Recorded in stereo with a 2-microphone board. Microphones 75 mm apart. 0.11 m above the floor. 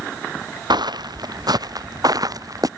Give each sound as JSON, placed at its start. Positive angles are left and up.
{"t": 0.7, "sound": "footsteps", "side_deg": -75}